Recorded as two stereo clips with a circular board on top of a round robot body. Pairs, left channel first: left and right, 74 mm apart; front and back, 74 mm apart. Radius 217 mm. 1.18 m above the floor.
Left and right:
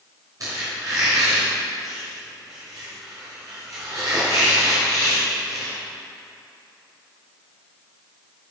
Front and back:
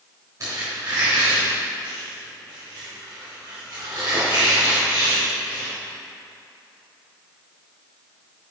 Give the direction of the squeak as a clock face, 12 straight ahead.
4 o'clock.